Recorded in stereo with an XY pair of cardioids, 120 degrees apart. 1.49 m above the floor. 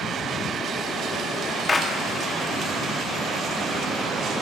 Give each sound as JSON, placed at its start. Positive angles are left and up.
{"t": 1.7, "sound": "a clap", "azimuth_deg": 25, "distance_m": 0.9}